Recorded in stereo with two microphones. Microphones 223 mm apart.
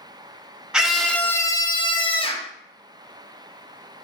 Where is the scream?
5° right (ahead or behind), 0.6 m; by 2.5 s 25° left (ahead or behind), 0.8 m.